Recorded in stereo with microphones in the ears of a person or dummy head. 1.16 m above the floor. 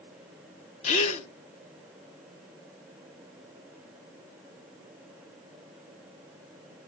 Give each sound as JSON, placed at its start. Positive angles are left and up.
{"t": 0.8, "sound": "a gasp", "side_deg": 35, "distance_m": 1.0}